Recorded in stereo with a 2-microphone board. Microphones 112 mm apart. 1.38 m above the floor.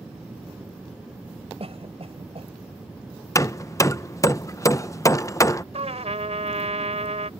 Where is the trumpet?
75° right (ahead or behind).